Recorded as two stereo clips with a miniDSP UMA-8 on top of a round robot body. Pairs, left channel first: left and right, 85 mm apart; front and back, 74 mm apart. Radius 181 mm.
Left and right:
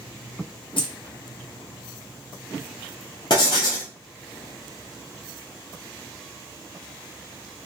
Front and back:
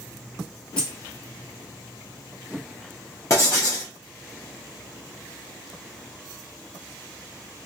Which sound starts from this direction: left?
Keys jangling, at 0.8 s.